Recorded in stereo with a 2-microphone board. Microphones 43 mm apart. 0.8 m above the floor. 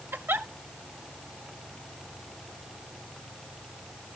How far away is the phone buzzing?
No phone buzzing in this recording.